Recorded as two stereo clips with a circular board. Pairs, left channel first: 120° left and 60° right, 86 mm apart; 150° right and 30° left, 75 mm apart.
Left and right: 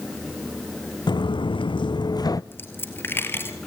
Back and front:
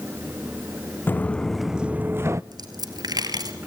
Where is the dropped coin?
60° left, 2.0 m.